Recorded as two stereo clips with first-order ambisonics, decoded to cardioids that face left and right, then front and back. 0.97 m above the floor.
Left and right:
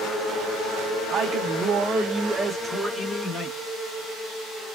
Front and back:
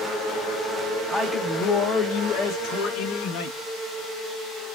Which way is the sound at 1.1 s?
85° right.